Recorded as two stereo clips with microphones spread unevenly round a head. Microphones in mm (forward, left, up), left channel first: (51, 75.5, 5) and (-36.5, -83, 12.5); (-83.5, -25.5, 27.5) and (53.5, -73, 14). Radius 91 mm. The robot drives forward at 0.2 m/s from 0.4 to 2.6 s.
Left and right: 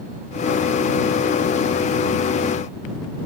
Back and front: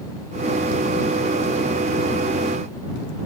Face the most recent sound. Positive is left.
No sound to turn to.